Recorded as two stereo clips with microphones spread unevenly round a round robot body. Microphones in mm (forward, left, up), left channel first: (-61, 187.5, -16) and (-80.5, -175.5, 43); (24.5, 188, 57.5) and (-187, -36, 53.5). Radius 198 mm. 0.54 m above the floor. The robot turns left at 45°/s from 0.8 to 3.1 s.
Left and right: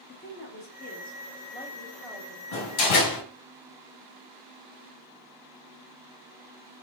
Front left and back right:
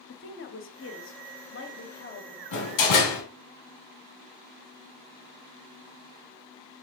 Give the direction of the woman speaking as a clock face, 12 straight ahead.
10 o'clock.